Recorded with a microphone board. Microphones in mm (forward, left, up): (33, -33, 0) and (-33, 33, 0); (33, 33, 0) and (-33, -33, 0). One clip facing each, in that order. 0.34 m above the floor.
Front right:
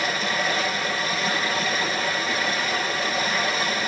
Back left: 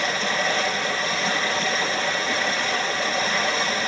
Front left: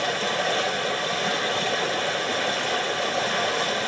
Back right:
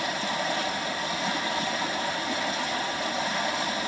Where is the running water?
40° left, 3.5 m.